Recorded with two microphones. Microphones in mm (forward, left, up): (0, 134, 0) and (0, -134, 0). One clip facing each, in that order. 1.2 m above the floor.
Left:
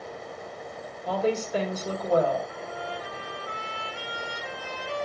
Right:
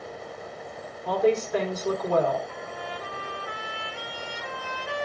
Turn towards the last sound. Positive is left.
turn(degrees=-80)